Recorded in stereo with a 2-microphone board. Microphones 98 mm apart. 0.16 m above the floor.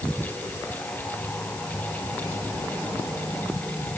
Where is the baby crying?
No baby crying in this recording.